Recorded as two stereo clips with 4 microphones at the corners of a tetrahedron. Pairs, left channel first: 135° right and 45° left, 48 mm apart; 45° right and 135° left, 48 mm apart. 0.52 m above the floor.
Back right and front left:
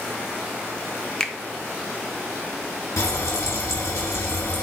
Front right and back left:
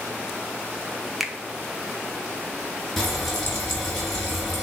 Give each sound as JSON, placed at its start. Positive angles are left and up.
{"t": 1.2, "sound": "a finger snap", "azimuth_deg": -155, "distance_m": 0.5}
{"t": 3.0, "sound": "frying", "azimuth_deg": -130, "distance_m": 1.7}